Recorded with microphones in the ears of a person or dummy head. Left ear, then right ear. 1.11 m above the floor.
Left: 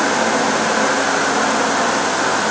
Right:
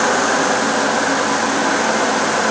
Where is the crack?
I don't hear a crack.